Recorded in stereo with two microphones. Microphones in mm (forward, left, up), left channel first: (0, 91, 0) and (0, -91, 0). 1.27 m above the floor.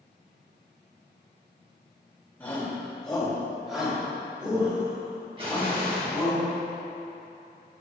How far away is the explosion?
About 1.7 m.